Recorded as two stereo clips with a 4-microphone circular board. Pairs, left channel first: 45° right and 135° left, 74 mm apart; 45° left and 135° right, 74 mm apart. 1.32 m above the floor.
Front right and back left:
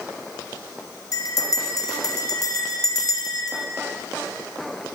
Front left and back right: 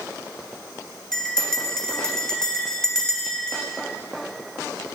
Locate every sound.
1.1 s a bell: 35° right, 1.6 m